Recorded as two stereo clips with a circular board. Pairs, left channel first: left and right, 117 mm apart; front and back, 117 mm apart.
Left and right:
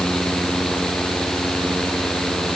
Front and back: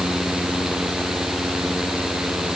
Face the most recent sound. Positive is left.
No sound to turn to.